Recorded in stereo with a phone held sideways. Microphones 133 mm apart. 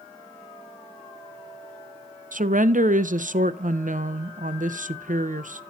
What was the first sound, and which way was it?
A woman speaking, 80° right.